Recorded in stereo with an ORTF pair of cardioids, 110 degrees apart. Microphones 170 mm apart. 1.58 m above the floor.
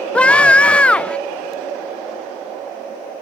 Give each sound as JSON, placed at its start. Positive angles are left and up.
{"t": 0.1, "sound": "a scream", "azimuth_deg": 5}